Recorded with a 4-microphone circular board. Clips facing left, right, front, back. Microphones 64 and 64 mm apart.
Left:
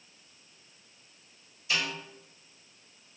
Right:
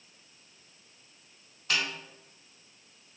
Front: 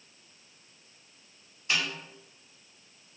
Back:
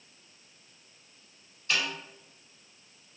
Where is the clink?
No clink in this recording.